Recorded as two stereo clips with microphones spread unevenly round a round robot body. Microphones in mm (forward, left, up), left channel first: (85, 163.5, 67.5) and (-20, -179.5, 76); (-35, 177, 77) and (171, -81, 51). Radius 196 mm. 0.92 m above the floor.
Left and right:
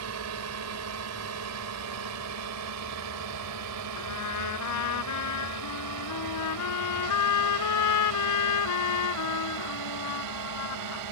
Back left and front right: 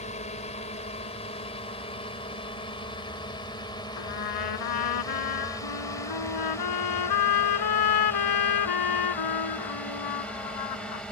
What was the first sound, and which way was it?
A drone, 160° right.